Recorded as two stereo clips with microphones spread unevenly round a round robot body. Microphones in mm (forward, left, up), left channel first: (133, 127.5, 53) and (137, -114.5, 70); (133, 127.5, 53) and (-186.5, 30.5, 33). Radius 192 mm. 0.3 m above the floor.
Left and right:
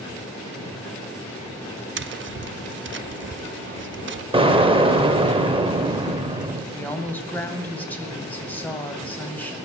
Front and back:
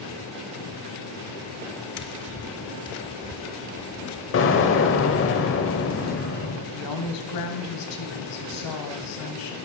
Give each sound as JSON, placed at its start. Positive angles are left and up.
{"t": 2.0, "sound": "tapping", "azimuth_deg": -45, "distance_m": 0.7}
{"t": 4.3, "sound": "an explosion", "azimuth_deg": -25, "distance_m": 1.4}
{"t": 6.7, "sound": "a woman speaking", "azimuth_deg": 10, "distance_m": 2.5}